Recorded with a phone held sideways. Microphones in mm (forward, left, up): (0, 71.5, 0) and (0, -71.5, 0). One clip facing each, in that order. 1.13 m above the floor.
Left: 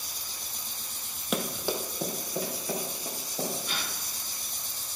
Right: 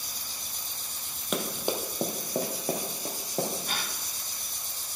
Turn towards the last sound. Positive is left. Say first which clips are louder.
# right 1 dB
turn(degrees=-45)  # may be behind; listen again after turning